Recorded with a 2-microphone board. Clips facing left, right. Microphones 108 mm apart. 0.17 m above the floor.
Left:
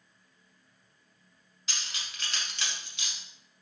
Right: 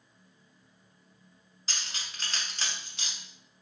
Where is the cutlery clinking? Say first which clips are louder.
Right 1 dB; 35° right (ahead or behind), 0.9 m.